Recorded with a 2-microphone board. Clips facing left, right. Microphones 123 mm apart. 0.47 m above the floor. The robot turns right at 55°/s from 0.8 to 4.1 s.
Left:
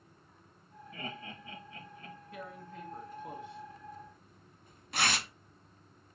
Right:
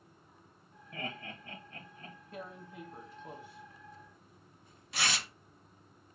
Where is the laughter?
65° right (ahead or behind), 1.6 m; by 2.2 s 30° right (ahead or behind), 1.6 m.